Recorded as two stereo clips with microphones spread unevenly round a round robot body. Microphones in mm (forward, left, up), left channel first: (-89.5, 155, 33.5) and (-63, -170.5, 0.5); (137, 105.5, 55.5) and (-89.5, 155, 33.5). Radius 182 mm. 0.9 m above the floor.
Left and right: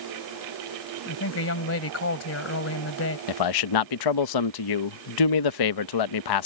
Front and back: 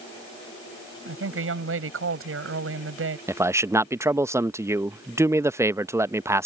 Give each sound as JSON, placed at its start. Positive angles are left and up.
{"t": 1.1, "sound": "a woman speaking", "azimuth_deg": 140}
{"t": 3.3, "sound": "a man speaking", "azimuth_deg": 90}